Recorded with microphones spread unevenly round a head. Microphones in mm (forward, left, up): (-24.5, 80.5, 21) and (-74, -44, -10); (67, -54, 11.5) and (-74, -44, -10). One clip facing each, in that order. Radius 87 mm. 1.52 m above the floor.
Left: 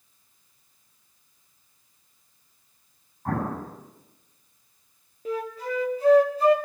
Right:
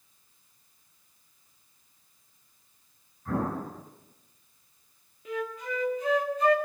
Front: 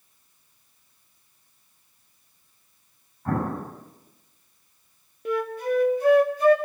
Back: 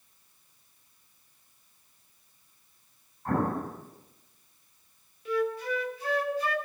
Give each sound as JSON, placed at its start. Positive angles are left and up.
{"t": 3.2, "sound": "an explosion", "azimuth_deg": 15, "distance_m": 8.0}
{"t": 5.2, "sound": "a flute", "azimuth_deg": 20, "distance_m": 1.4}